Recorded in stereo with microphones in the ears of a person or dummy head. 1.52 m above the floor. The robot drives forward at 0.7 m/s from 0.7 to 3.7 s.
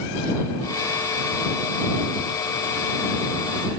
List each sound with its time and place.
Only background noise.